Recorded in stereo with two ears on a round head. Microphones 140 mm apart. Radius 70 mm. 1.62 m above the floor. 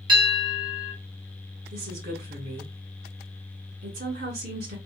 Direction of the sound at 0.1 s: 30° right (ahead or behind).